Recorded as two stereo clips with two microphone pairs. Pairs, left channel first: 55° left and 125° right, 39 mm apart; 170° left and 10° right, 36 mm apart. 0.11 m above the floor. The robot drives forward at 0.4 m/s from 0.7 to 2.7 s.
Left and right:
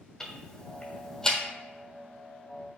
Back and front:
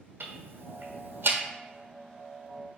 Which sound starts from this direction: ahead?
Ticking, at 0.2 s.